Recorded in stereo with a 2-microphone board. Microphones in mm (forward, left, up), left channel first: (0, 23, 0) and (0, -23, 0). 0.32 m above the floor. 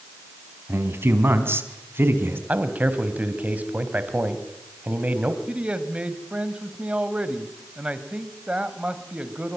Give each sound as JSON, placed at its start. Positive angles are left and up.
{"t": 0.7, "sound": "a man speaking", "side_deg": -60, "distance_m": 3.0}
{"t": 2.5, "sound": "a man speaking", "side_deg": -35, "distance_m": 2.0}
{"t": 5.5, "sound": "a man speaking", "side_deg": -25, "distance_m": 2.0}